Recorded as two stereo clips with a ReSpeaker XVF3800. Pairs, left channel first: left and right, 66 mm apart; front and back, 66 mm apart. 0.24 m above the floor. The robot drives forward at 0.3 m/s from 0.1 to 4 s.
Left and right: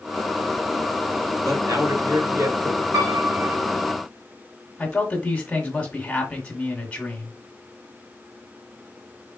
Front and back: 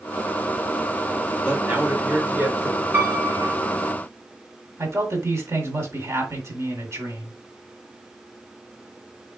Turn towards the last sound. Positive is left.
turn(degrees=155)